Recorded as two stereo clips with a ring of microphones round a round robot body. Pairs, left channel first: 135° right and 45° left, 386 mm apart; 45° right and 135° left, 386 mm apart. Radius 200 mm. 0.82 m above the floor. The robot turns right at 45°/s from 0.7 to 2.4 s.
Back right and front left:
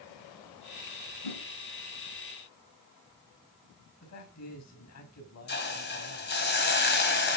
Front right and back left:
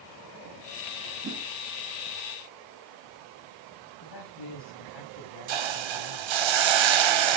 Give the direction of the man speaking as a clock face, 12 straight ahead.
3 o'clock.